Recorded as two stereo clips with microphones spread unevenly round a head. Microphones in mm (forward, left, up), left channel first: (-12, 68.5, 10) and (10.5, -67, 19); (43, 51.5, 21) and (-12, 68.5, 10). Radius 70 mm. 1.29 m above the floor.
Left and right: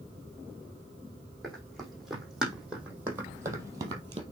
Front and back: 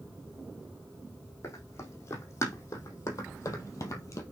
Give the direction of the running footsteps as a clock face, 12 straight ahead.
12 o'clock.